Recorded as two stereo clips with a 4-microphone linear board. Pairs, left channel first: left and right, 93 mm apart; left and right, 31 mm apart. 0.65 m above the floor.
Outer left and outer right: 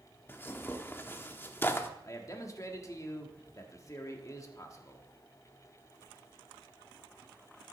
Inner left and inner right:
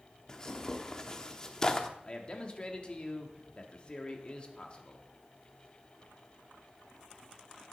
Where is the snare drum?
I don't hear a snare drum.